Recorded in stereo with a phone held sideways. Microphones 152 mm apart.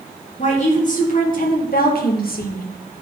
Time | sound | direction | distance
0.4 | a woman speaking | 50° left (ahead or behind) | 3 m